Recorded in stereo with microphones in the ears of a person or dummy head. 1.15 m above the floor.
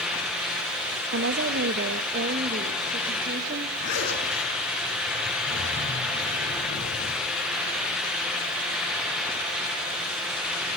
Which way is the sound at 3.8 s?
65° left (ahead or behind).